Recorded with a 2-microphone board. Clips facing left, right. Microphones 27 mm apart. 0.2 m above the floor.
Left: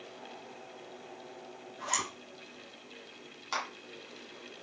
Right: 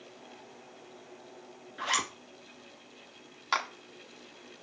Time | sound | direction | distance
1.8 | a zipper | 55° right (ahead or behind) | 1.3 m
3.5 | a clap | 35° right (ahead or behind) | 1.5 m